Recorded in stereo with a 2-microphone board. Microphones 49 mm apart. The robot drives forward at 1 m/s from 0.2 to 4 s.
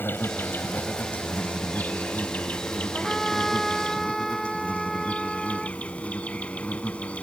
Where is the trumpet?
5° left (ahead or behind).